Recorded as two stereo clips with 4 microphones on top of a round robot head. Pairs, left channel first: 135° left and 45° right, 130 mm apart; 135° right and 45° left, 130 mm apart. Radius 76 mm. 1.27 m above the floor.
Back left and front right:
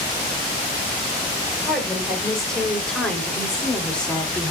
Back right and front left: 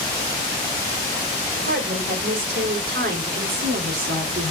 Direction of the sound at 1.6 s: 50° left.